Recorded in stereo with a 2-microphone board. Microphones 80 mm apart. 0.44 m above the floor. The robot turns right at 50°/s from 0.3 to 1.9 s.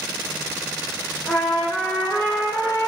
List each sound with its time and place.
1.3 s a trumpet: 10° right, 4.5 m; by 2.9 s 25° left, 4.5 m